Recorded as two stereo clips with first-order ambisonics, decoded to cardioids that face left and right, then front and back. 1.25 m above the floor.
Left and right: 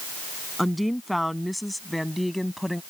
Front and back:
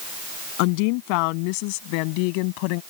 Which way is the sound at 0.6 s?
Straight ahead.